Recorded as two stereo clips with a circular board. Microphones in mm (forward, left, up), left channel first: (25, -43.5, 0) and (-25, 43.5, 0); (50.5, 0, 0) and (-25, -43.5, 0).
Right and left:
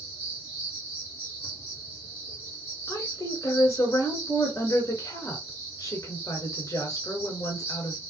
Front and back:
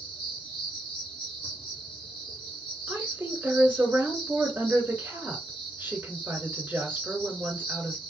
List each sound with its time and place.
0.0 s an insect: 5° left, 1.8 m
2.9 s a woman speaking: 90° right, 1.8 m